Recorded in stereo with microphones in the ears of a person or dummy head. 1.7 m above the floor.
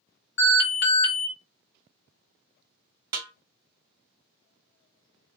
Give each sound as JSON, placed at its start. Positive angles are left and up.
{"t": 0.4, "sound": "an alarm", "side_deg": 60, "distance_m": 1.4}
{"t": 3.1, "sound": "a snare drum", "side_deg": -20, "distance_m": 0.6}